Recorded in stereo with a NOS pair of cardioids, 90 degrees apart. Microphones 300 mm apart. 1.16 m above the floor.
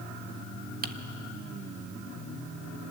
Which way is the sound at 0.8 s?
30° right.